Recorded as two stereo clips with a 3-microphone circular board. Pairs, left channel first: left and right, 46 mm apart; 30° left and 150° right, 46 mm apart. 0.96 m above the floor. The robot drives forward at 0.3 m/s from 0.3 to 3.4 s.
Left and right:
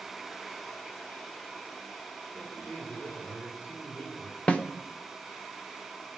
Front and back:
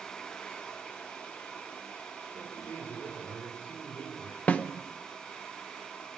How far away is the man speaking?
About 9.5 m.